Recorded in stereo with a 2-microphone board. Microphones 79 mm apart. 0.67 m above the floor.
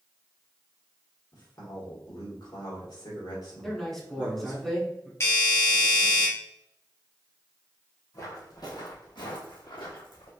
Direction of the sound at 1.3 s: 60° left (ahead or behind).